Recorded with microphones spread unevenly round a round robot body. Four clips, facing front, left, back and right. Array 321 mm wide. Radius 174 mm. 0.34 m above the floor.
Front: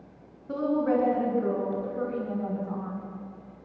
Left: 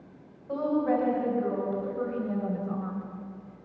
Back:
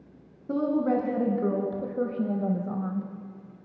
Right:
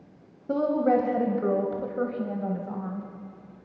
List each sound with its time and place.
0.5 s a woman speaking: 105° right, 2.5 m; by 3.1 s 175° left, 3 m